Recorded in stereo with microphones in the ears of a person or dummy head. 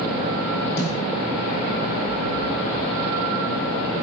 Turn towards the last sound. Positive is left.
turn(degrees=70)  # may be behind; listen again after turning